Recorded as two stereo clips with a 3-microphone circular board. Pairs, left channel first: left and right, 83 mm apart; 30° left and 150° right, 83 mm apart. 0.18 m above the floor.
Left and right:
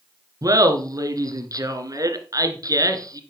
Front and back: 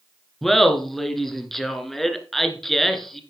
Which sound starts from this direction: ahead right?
Laughter, at 0.4 s.